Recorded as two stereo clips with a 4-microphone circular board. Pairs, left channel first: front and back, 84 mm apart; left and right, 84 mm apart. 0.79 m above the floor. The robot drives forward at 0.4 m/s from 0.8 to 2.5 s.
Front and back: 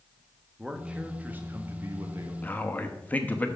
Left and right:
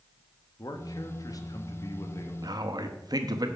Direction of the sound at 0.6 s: 100° left.